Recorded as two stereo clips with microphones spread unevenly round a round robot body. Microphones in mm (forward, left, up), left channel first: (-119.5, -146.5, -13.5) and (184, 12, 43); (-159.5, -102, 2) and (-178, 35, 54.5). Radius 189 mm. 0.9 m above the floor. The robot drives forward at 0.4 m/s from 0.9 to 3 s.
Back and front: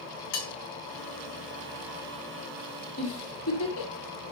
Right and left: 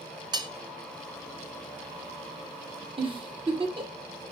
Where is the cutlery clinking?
155° left, 1.3 m.